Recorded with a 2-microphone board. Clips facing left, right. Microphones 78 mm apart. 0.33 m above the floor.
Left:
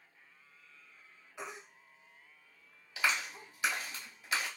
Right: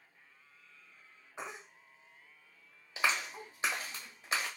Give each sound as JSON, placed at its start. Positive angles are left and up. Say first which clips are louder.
{"t": 1.4, "sound": "a baby crying", "louder": "right 1 dB", "side_deg": -30, "distance_m": 0.7}
{"t": 3.0, "sound": "a clap", "louder": "even", "side_deg": -30, "distance_m": 1.3}